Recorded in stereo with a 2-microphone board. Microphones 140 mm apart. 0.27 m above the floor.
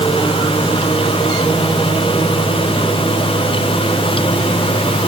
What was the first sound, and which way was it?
Only background noise.